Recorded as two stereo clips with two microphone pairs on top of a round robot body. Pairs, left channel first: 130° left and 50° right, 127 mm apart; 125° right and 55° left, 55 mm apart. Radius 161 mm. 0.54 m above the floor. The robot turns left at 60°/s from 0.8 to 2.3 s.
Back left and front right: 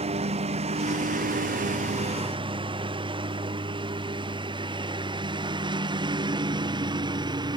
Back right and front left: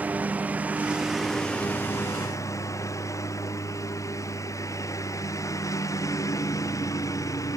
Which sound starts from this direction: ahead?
A lawn mower, at 0.0 s.